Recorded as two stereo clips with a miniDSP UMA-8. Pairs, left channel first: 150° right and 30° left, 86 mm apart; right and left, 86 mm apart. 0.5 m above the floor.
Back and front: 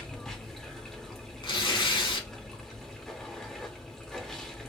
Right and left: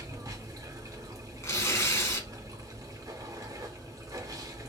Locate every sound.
0.0 s running water: 125° left, 0.7 m
1.4 s tearing paper: 145° right, 0.8 m